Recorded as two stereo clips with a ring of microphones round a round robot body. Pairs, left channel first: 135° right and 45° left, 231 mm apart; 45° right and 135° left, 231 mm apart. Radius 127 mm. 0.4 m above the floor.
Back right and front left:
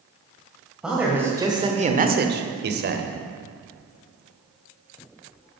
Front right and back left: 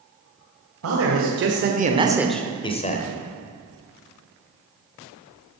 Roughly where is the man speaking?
Behind left.